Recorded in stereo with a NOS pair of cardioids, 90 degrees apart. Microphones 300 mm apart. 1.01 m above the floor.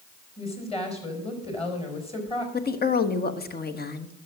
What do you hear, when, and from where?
0.4 s a woman speaking: 20° left, 5 m
2.5 s a woman speaking: 35° left, 1.4 m